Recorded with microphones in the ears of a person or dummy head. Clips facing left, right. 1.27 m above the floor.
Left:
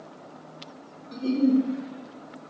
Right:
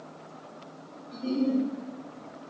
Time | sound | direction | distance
1.1 | a giggle | 60° left (ahead or behind) | 0.6 m